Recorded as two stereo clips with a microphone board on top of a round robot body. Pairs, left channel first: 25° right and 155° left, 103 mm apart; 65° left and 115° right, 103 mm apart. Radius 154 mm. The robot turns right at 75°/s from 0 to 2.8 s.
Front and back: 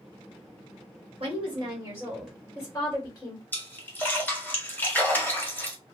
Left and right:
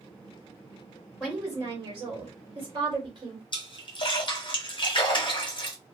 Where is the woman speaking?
155° left, 1.8 m; by 3.4 s 85° right, 1.8 m.